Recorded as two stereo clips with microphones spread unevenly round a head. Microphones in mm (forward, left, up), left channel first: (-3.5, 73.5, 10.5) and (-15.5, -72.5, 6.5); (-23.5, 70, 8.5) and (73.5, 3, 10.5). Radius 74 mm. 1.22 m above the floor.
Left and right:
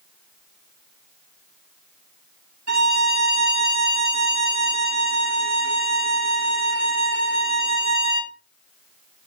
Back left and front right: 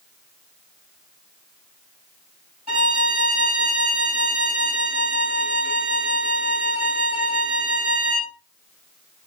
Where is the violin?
85° right, 3 m.